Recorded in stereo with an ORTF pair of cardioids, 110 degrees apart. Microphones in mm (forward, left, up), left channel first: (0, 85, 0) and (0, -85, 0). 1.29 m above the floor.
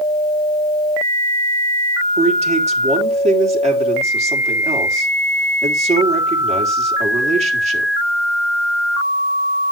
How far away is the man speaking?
About 4 m.